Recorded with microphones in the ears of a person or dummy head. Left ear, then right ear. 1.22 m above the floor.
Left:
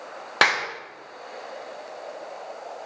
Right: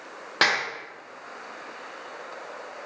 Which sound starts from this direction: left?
A clap, at 0.4 s.